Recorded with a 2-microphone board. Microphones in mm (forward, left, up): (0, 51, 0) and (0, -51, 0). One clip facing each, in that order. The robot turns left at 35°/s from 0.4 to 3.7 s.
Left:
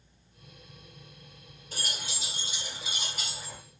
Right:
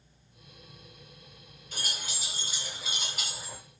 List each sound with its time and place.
1.7 s keys jangling: 40° left (ahead or behind), 1.4 m; by 3.6 s 15° right (ahead or behind), 1.4 m